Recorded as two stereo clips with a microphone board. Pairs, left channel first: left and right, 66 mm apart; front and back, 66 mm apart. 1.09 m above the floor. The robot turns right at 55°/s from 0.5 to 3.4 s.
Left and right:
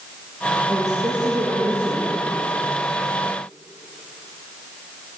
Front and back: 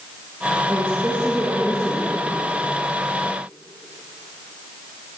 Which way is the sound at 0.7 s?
135° right.